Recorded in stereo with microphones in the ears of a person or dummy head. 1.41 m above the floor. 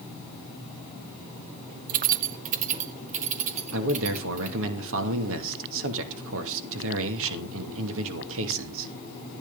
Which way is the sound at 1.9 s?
40° right (ahead or behind).